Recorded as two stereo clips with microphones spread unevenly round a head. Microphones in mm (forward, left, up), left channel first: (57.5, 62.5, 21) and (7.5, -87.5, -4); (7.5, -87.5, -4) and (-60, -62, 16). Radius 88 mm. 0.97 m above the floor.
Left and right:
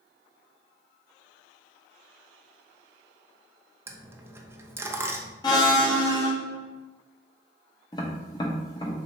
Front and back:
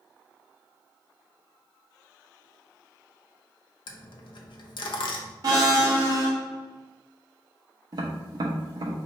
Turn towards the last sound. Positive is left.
turn(degrees=135)